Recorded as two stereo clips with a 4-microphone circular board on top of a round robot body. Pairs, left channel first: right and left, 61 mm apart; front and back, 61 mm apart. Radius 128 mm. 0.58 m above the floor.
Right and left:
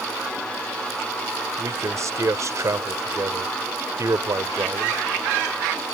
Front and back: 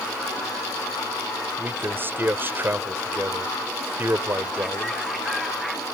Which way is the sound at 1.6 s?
125° left.